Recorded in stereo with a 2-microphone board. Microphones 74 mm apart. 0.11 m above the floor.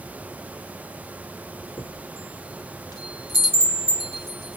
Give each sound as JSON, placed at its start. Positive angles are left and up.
{"t": 1.8, "sound": "a chime", "side_deg": 50, "distance_m": 3.0}